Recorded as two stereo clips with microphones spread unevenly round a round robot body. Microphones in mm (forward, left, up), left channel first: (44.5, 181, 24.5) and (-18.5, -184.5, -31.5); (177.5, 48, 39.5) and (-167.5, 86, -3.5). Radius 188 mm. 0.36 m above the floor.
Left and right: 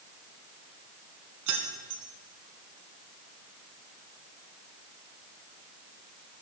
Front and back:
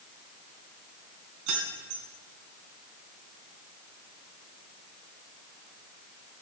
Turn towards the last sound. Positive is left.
turn(degrees=-140)